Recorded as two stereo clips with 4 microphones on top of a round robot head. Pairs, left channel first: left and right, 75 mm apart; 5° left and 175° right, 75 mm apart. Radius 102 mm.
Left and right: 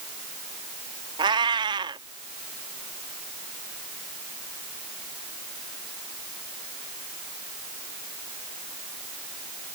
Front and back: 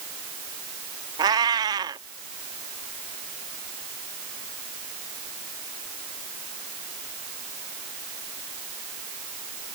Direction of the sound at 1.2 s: 130° right.